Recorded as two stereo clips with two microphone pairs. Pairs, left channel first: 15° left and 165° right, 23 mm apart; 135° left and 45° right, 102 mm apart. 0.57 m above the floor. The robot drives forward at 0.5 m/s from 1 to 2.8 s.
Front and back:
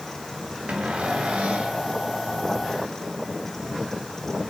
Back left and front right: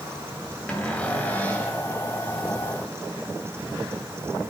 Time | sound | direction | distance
0.7 | a cupboard door | 145° right | 2 m